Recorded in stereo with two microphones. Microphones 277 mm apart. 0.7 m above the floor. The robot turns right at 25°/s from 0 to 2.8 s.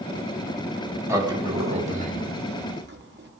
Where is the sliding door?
165° right, 1.7 m; by 3.3 s 125° right, 1.7 m.